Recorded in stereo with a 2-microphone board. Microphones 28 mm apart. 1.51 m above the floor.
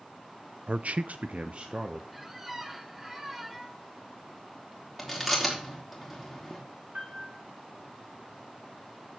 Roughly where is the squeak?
Centre.